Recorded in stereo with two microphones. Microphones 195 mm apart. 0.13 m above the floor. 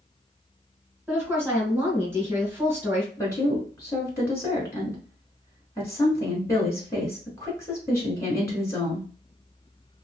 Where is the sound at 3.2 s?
15° left (ahead or behind), 1.0 m.